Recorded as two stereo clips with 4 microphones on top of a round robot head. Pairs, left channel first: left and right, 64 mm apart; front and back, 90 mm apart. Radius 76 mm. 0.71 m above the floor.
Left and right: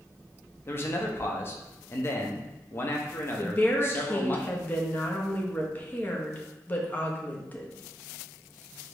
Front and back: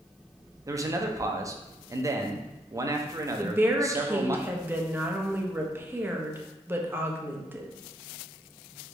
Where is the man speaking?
135° left, 0.7 m.